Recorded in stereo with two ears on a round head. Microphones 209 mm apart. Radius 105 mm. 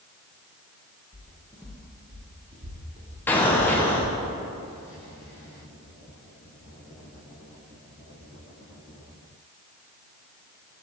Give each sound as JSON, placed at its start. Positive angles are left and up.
{"t": 1.1, "sound": "footsteps", "side_deg": 25, "distance_m": 1.5}
{"t": 3.3, "sound": "an explosion", "side_deg": 10, "distance_m": 0.7}